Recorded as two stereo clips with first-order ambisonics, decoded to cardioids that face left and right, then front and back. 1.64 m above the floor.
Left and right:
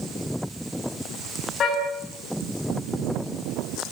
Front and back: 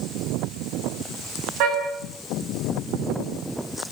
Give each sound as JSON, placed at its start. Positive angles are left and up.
{"t": 1.6, "sound": "a car horn", "azimuth_deg": 150, "distance_m": 7.0}